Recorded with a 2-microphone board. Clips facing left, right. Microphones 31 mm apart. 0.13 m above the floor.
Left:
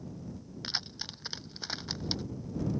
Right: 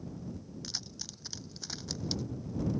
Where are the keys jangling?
45° left (ahead or behind); by 2.2 s 30° left (ahead or behind).